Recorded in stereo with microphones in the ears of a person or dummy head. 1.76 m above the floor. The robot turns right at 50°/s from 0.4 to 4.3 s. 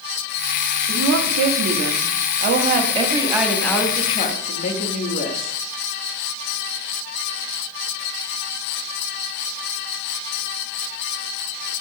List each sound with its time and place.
0.9 s a woman speaking: 130° right, 0.8 m; by 5.6 s 40° left, 0.8 m